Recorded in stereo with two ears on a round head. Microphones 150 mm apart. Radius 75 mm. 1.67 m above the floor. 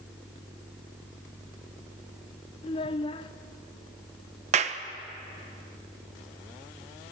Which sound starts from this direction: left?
A child speaking, at 2.6 s.